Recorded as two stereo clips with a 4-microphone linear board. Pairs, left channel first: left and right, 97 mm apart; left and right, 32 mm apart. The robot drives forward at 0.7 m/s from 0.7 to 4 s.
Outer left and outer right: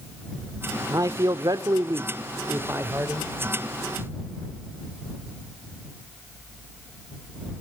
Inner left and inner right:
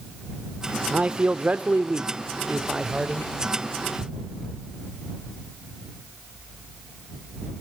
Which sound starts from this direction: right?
A man speaking, at 0.9 s.